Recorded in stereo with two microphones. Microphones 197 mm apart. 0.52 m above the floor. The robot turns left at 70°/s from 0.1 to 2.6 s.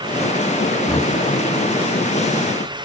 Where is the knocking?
10° left (ahead or behind), 6 m; by 1.1 s 30° left (ahead or behind), 6 m.